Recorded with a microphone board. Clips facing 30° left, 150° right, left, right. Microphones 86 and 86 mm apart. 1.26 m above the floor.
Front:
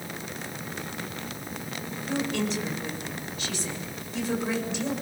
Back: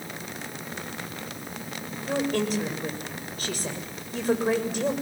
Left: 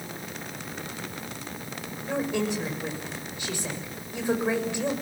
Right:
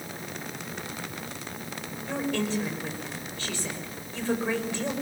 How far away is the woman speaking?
About 6 m.